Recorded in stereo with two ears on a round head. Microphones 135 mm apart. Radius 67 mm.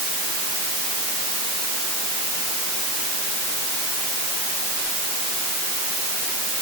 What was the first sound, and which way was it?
Only background noise.